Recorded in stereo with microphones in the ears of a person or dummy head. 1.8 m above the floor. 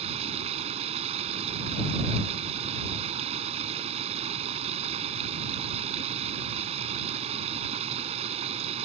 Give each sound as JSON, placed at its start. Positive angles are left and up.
{"t": 0.0, "sound": "running water", "side_deg": -35}